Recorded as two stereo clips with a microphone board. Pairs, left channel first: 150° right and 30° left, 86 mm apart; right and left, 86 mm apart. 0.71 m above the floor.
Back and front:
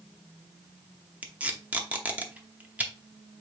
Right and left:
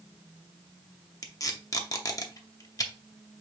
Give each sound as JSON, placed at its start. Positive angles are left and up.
{"t": 1.2, "sound": "tape being pulled", "azimuth_deg": -40, "distance_m": 0.7}